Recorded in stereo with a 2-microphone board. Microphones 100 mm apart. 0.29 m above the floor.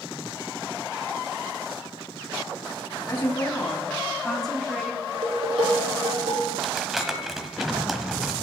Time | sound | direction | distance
3.1 | a woman speaking | 40° left (ahead or behind) | 2.5 m
5.1 | dishes clattering | 80° right | 6.5 m
6.6 | crumpling | centre (ahead or behind) | 1.1 m